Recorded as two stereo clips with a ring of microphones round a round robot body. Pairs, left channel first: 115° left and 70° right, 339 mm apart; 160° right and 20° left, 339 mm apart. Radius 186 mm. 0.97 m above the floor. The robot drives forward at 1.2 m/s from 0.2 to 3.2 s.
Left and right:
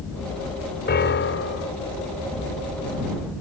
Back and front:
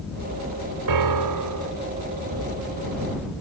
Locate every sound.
0.9 s a piano: 50° left; by 1.7 s 65° left